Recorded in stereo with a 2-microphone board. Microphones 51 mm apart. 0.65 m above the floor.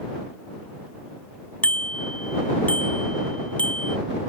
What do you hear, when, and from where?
1.6 s a bicycle bell: 25° left (ahead or behind)